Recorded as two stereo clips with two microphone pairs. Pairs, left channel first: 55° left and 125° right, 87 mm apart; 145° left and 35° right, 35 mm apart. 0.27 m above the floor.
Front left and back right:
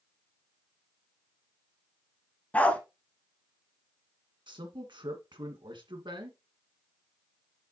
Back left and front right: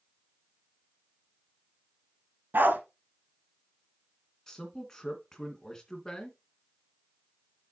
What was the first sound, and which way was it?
A dog barking, 20° right.